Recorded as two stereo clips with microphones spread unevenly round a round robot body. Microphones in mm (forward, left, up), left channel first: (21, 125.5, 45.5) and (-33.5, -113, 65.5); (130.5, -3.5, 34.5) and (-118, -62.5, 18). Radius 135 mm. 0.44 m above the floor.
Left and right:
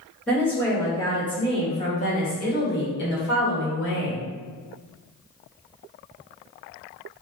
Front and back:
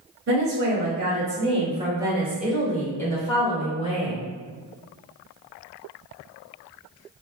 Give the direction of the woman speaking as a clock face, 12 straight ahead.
7 o'clock.